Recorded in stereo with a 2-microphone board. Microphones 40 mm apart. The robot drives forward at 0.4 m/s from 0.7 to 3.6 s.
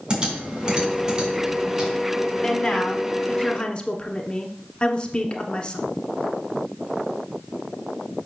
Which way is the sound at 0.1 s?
20° right (ahead or behind).